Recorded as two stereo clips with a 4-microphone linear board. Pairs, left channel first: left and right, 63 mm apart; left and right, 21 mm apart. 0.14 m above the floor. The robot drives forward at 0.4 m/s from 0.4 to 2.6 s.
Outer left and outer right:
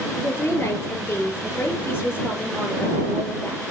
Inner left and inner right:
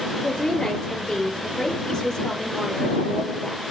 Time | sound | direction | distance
0.2 | a woman speaking | 40° left (ahead or behind) | 3.5 m